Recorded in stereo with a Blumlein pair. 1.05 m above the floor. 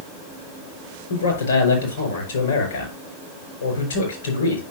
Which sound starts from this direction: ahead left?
A man speaking, at 1.1 s.